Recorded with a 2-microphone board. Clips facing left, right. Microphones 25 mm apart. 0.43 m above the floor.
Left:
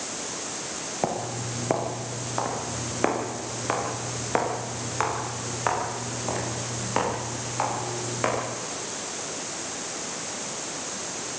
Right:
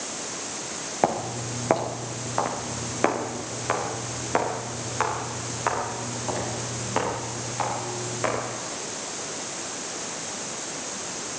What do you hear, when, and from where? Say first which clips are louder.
1.0 s footsteps: right 4 dB; 25° right (ahead or behind), 3 m; by 8.4 s 10° left (ahead or behind), 9 m